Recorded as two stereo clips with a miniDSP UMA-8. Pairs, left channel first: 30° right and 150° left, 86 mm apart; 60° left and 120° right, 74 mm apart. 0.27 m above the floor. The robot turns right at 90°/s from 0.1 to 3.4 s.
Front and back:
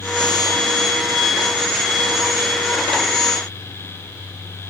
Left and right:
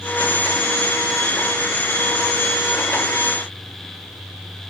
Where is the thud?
No thud in this recording.